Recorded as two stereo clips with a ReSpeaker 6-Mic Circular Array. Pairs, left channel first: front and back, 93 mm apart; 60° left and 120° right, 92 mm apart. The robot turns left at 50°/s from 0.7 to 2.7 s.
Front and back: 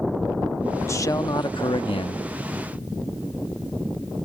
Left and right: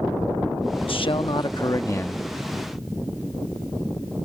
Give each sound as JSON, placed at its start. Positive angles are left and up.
{"t": 0.8, "sound": "a man speaking", "azimuth_deg": 60}